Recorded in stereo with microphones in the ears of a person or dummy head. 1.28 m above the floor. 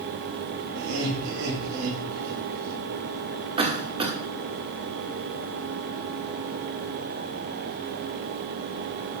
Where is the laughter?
70° right (ahead or behind), 5.5 m.